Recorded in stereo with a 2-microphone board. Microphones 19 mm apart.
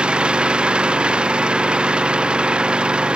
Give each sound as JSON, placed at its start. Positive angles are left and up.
{"t": 0.0, "sound": "an engine running", "side_deg": -60}